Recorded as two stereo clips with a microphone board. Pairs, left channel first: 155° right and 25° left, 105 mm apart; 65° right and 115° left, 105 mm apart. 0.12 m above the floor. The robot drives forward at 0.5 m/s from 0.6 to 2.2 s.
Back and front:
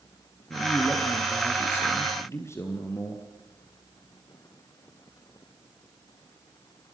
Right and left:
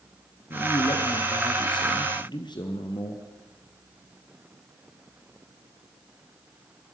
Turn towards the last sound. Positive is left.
turn(degrees=-100)